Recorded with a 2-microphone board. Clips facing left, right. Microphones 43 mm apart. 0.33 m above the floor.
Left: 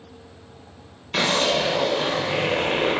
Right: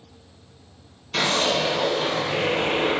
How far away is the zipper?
About 0.9 m.